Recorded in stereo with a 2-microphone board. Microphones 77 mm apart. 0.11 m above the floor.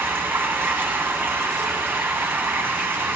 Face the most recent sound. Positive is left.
turn(degrees=-25)  # may be behind; listen again after turning